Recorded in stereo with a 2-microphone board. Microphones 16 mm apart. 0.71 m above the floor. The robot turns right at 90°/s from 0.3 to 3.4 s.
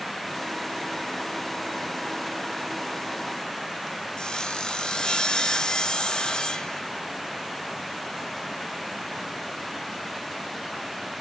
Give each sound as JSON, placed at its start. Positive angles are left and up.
{"t": 4.2, "sound": "sawing", "side_deg": 70, "distance_m": 1.0}